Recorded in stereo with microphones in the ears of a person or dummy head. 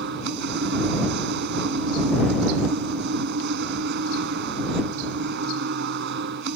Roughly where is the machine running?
Right.